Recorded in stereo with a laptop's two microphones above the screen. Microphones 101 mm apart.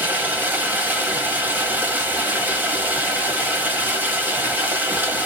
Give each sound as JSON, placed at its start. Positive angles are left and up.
{"t": 0.0, "sound": "running water", "side_deg": -20, "distance_m": 1.0}